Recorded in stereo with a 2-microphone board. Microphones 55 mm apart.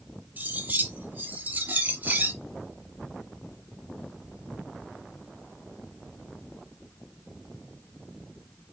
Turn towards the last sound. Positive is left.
turn(degrees=-30)  # may be behind; listen again after turning